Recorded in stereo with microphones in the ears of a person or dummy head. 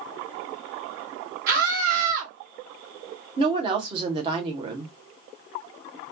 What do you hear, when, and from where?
1.5 s a scream: 55° right (ahead or behind), 1.7 m
3.4 s a woman speaking: 30° right (ahead or behind), 0.9 m